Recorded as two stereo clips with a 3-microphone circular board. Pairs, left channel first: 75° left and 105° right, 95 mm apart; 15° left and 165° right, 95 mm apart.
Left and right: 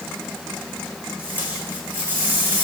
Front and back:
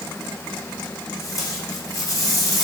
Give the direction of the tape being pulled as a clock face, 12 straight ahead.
1 o'clock.